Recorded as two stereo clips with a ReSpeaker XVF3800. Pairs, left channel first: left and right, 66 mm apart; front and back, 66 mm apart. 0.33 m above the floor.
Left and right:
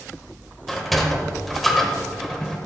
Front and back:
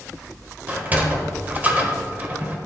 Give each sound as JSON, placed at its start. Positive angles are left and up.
{"t": 0.7, "sound": "a sliding door", "azimuth_deg": 175, "distance_m": 1.4}